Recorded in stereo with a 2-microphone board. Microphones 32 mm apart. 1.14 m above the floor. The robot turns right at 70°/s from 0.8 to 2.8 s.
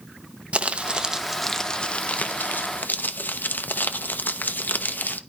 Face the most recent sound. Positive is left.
turn(degrees=100)